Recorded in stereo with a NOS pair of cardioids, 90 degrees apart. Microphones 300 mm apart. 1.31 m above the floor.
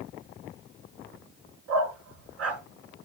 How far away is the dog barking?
About 4.5 m.